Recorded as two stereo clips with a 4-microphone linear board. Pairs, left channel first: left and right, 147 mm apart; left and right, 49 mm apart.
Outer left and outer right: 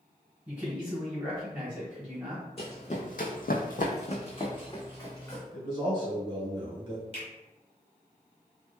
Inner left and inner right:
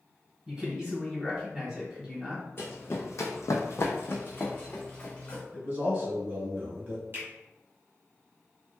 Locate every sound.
0.5 s a man speaking: 10° right (ahead or behind), 1.7 m
2.6 s running footsteps: 40° left (ahead or behind), 0.8 m; by 5.4 s 20° left (ahead or behind), 1.4 m
5.5 s a man speaking: 30° right (ahead or behind), 1.2 m
7.1 s a finger snap: 40° right (ahead or behind), 1.4 m